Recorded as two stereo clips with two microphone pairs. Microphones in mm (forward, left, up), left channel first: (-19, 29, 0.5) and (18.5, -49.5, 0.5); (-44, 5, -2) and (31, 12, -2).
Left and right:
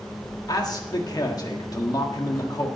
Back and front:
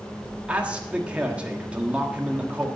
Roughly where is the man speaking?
Left.